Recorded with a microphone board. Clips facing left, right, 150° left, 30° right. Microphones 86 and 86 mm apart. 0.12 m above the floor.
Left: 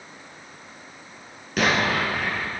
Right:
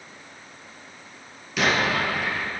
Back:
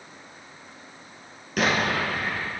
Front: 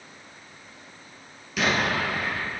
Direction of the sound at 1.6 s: 125° left.